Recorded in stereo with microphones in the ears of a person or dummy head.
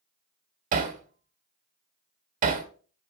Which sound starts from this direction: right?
Hammering, at 0.7 s.